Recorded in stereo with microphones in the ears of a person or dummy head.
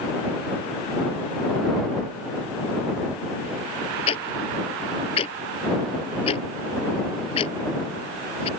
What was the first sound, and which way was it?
Ticking, 35° left (ahead or behind).